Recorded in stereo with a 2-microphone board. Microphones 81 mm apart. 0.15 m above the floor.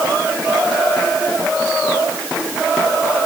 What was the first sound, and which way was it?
Only background noise.